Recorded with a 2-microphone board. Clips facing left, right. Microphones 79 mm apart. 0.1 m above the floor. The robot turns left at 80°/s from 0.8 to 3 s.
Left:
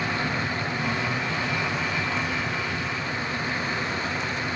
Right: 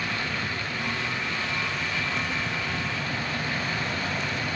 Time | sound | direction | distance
0.0 | an insect | 130° left | 3 m